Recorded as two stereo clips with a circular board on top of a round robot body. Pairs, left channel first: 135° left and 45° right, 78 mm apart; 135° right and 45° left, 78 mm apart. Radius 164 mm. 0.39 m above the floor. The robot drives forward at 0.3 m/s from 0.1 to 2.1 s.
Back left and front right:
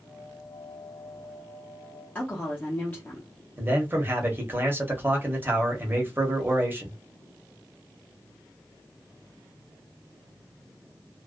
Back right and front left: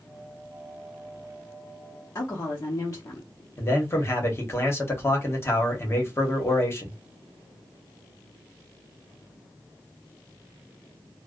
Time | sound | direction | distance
2.1 | a woman speaking | 165° right | 1.1 m
3.6 | a man speaking | 95° right | 1.2 m